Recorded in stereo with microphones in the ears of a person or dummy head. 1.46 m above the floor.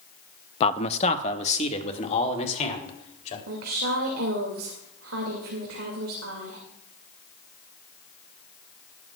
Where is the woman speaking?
85° right, 2.5 m.